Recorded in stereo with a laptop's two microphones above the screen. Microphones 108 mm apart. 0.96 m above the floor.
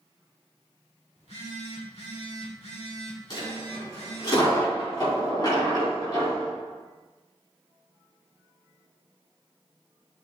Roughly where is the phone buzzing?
Left.